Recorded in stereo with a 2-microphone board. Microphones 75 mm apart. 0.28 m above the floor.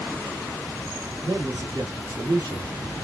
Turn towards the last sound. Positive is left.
turn(degrees=-50)  # may be behind; listen again after turning